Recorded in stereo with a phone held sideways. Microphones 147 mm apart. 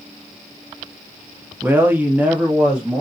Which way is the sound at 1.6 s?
15° right (ahead or behind).